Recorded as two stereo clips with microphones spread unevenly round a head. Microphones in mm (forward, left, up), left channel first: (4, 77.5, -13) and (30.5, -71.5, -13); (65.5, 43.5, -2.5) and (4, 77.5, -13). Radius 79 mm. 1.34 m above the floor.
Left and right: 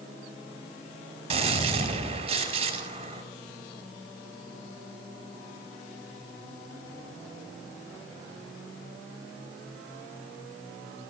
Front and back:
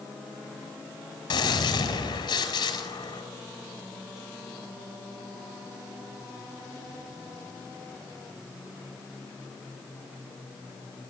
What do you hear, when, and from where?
1.3 s a gunshot: 30° right, 5 m